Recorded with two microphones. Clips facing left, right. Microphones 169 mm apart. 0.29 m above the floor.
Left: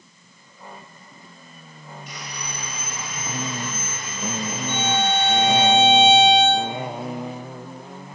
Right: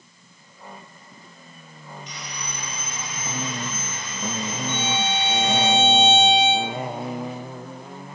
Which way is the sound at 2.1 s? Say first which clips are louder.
Left 2 dB; 55° left (ahead or behind).